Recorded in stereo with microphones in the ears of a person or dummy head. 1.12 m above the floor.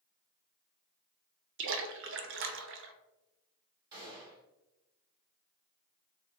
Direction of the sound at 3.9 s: 20° right (ahead or behind).